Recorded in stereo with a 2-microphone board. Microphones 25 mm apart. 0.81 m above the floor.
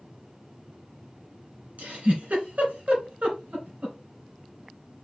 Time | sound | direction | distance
1.8 | a giggle | 75° right (ahead or behind) | 3 m